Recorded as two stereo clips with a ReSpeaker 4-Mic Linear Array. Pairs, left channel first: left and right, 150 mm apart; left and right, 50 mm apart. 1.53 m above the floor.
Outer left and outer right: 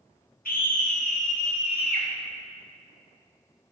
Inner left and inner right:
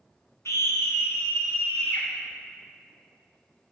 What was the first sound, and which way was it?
A scream, 75° left (ahead or behind).